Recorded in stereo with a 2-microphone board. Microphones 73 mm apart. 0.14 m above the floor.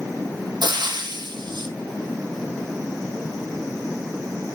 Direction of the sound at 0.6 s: 75° right (ahead or behind).